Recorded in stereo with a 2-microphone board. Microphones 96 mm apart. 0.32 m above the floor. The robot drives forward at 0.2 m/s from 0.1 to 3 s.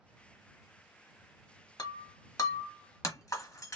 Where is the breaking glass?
40° left (ahead or behind), 0.9 m; by 3.8 s 35° left (ahead or behind), 1.1 m.